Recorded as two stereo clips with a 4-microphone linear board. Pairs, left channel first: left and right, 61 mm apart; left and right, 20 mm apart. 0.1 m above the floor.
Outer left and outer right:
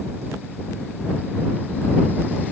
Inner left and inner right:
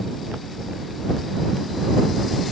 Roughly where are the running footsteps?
No running footsteps in this recording.